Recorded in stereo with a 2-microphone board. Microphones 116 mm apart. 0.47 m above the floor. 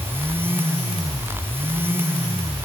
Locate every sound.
Only background noise.